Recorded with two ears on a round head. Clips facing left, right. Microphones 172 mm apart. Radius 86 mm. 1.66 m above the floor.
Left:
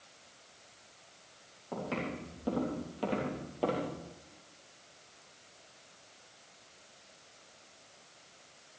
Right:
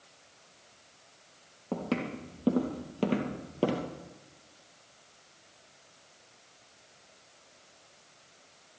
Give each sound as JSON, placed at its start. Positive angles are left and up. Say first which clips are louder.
{"t": 1.7, "sound": "footsteps", "louder": "right 4 dB", "side_deg": -60, "distance_m": 4.0}